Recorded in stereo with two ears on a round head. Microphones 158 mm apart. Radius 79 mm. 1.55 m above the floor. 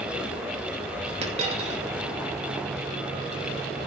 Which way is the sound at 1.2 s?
35° right (ahead or behind).